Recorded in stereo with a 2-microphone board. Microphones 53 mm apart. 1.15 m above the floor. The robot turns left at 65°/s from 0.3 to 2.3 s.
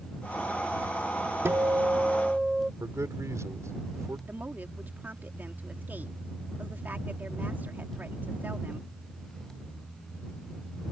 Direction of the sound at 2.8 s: 70° right (ahead or behind).